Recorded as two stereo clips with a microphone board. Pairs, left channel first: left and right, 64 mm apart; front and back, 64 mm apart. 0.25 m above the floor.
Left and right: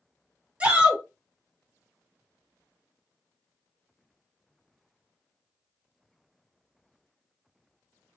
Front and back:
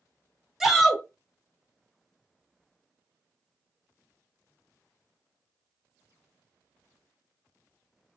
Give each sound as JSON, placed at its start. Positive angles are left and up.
{"t": 0.6, "sound": "a shout", "azimuth_deg": -105, "distance_m": 1.3}